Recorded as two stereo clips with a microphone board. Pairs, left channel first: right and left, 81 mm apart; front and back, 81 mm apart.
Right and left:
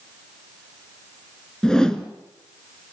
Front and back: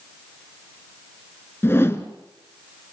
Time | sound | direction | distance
1.6 | a whoosh | 15° right | 1.3 m